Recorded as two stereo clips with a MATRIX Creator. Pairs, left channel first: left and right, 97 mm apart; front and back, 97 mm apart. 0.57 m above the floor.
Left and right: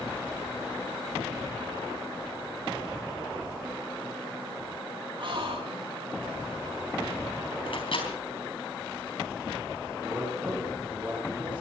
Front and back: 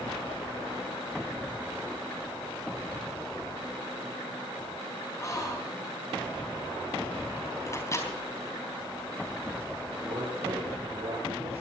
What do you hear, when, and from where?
5.2 s a gasp: 55° right, 5 m
7.7 s a microwave: 60° left, 4 m
9.9 s a man speaking: 165° right, 5 m